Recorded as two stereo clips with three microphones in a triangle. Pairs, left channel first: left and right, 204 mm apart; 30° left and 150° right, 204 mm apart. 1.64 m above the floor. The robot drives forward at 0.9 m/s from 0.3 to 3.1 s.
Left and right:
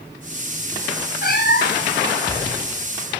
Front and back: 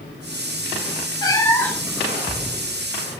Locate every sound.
1.2 s a cat meowing: 95° left, 2 m; by 2.0 s 115° left, 2.5 m